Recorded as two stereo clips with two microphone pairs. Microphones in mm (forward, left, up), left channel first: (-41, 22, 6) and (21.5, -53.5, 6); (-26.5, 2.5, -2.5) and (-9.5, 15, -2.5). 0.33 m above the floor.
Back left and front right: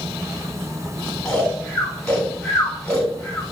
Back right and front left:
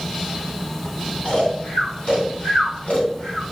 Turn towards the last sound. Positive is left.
turn(degrees=-150)